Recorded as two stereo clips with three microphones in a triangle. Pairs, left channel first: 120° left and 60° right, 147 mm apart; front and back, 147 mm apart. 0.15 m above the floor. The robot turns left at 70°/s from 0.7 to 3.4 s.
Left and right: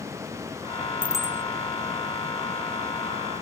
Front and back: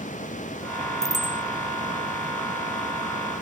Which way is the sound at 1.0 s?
135° right.